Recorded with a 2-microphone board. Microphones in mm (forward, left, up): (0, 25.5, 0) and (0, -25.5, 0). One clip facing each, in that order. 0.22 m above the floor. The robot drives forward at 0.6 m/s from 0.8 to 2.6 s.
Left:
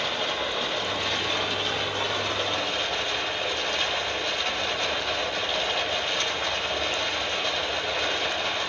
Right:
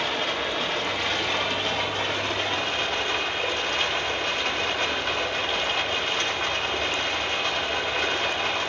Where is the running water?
70° right (ahead or behind), 4 m; by 8.7 s 60° right (ahead or behind), 4.5 m.